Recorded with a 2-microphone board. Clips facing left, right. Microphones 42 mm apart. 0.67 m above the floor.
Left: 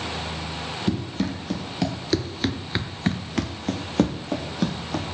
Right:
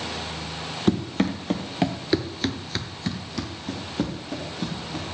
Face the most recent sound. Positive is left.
turn(degrees=75)  # may be behind; listen again after turning